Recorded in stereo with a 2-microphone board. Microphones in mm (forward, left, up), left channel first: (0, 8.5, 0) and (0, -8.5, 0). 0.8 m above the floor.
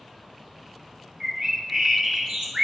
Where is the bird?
55° right (ahead or behind), 1.3 m.